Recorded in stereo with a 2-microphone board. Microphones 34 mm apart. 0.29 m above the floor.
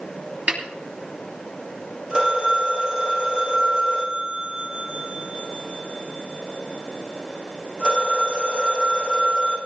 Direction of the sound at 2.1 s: 30° right (ahead or behind).